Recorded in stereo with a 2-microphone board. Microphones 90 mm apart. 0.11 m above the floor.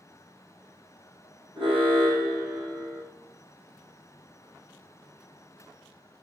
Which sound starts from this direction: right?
An alarm, at 1.6 s.